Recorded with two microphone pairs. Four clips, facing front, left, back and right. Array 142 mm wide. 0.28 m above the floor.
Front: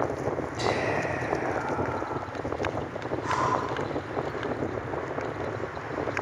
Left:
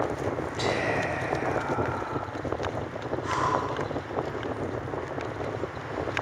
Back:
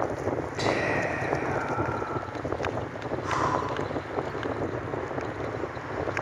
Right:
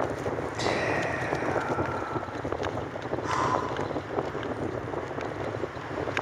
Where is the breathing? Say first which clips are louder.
Even, even; 25° right, 2 m.